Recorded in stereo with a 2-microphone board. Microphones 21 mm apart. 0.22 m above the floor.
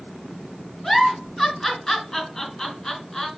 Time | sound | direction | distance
0.8 | a giggle | 25° left (ahead or behind) | 3.5 m